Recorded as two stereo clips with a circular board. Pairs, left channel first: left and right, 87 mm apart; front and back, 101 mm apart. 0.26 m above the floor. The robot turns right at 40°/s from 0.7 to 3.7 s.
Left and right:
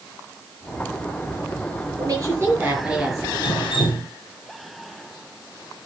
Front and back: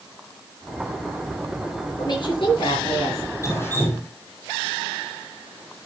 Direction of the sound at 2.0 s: 50° right.